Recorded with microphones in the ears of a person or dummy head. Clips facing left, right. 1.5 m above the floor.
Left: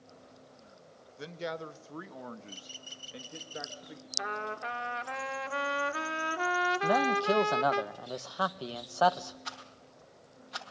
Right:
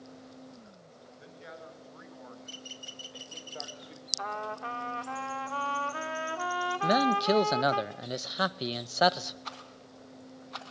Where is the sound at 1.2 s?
75° left (ahead or behind), 1.6 m; by 4.1 s 5° left (ahead or behind), 1.7 m.